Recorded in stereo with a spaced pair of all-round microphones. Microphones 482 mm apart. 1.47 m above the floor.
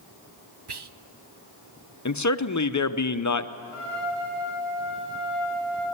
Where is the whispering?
55° right (ahead or behind), 0.6 m.